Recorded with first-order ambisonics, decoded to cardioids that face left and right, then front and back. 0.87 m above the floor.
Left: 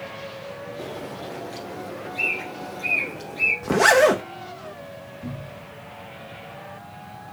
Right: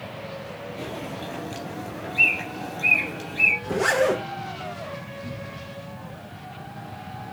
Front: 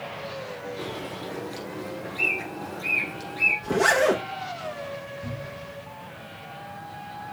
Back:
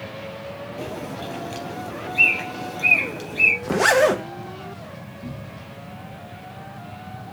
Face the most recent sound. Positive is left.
turn(degrees=145)